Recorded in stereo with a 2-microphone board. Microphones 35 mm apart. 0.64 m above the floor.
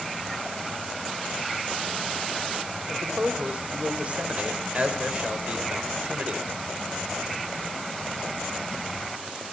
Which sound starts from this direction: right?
A man speaking, at 2.9 s.